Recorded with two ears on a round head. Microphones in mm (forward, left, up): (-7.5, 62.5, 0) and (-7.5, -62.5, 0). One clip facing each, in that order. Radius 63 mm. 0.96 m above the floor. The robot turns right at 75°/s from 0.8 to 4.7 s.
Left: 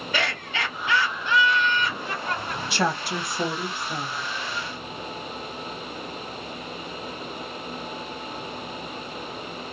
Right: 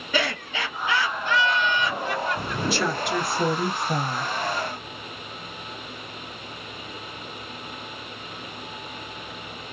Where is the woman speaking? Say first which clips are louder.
Even; 120° left, 1.4 m; by 4.3 s 120° right, 1.4 m.